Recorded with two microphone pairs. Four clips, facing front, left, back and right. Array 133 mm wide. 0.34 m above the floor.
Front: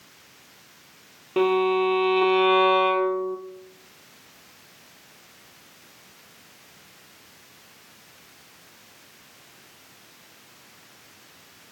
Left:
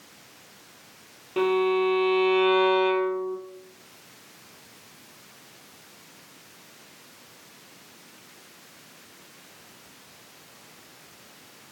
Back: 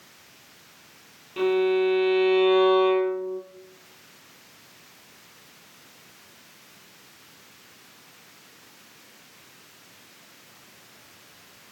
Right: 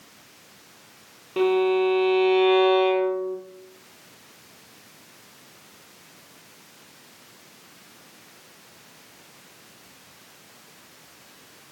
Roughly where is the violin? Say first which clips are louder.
Right 2 dB, front 1 dB; ahead.